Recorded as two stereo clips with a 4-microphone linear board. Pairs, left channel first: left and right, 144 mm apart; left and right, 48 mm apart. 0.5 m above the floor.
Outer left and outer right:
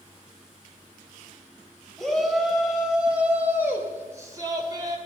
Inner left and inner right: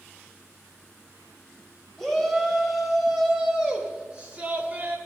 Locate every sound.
2.0 s a shout: 5° left (ahead or behind), 3 m; by 5.0 s 30° right (ahead or behind), 2 m